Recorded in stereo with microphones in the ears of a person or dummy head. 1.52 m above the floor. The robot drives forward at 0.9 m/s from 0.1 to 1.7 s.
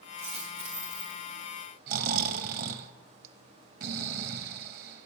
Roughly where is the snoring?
Right.